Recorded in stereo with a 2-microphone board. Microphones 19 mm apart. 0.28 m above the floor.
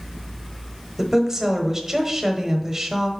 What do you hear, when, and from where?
1.0 s a woman speaking: 20° right (ahead or behind), 0.9 m